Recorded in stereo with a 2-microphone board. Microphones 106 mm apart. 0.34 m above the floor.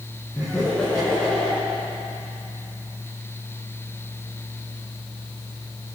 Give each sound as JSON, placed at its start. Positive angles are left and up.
{"t": 0.3, "sound": "laughter", "side_deg": 0, "distance_m": 3.5}